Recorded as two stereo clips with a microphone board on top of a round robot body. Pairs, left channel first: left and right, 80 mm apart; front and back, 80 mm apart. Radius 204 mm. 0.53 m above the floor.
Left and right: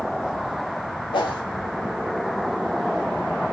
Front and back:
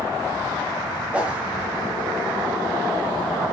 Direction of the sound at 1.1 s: 100° left.